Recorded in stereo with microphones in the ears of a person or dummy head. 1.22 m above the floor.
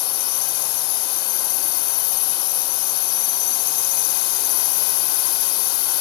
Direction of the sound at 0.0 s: 75° left (ahead or behind).